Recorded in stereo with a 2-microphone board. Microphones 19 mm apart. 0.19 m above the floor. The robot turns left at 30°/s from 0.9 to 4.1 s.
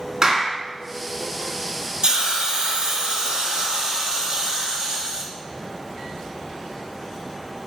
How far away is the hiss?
About 1.3 m.